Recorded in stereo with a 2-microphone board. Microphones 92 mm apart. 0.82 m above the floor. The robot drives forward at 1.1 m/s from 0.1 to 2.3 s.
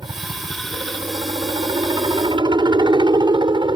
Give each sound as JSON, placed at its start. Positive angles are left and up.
{"t": 0.0, "sound": "a helicopter", "side_deg": -55}